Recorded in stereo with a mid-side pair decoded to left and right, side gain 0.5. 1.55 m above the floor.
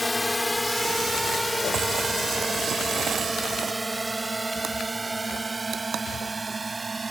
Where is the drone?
15° left; by 7.1 s 25° right.